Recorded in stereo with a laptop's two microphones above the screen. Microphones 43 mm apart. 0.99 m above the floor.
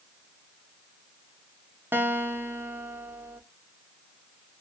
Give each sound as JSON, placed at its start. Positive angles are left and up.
{"t": 1.9, "sound": "a guitar", "side_deg": -60, "distance_m": 0.7}